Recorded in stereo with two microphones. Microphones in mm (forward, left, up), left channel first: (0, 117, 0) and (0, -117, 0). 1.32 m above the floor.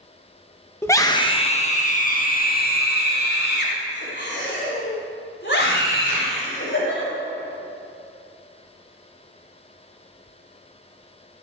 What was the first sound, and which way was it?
A scream, 10° left (ahead or behind).